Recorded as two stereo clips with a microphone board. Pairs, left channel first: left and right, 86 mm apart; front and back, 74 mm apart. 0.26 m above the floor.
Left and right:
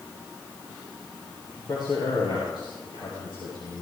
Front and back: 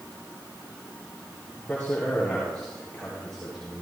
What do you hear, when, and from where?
1.6 s a man speaking: 65° left, 5.5 m; by 3.8 s 85° left, 5 m